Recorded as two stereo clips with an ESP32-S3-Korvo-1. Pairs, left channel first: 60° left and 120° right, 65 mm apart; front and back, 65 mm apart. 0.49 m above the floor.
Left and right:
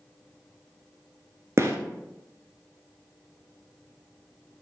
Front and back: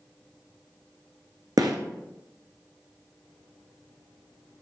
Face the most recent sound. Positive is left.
turn(degrees=-165)